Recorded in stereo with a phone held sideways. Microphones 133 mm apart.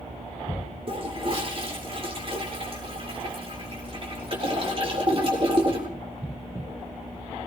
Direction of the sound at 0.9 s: 45° right (ahead or behind).